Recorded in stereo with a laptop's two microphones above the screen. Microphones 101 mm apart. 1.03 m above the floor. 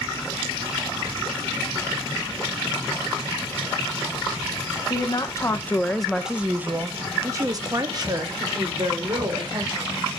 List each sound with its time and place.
4.9 s a woman speaking: 45° left (ahead or behind), 1.0 m; by 10.1 s 55° right (ahead or behind), 3 m